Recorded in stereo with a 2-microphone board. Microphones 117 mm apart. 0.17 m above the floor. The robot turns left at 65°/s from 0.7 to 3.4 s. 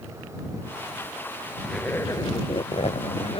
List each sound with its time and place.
1.6 s a zipper: straight behind; by 3.4 s 65° left